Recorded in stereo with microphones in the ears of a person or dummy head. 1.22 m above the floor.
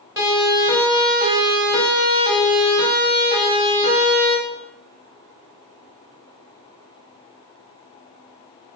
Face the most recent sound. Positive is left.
turn(degrees=-30)  # may be behind; listen again after turning